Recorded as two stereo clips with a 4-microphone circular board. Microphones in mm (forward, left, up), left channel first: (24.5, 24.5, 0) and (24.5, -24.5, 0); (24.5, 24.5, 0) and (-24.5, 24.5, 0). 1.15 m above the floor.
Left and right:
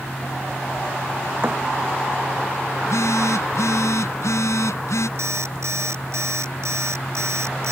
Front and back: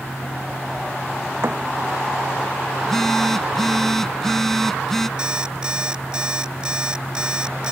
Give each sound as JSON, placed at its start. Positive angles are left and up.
{"t": 1.4, "sound": "a thud", "azimuth_deg": -140}
{"t": 2.8, "sound": "a phone buzzing", "azimuth_deg": 85}
{"t": 5.2, "sound": "an alarm clock", "azimuth_deg": -105}